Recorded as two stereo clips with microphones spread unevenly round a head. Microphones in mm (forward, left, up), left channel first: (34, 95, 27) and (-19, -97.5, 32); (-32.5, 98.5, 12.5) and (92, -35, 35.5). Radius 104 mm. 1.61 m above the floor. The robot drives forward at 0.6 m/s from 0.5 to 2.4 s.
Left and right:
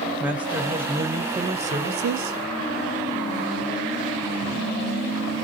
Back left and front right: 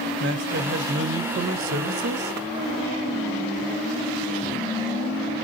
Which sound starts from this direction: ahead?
A man speaking, at 0.2 s.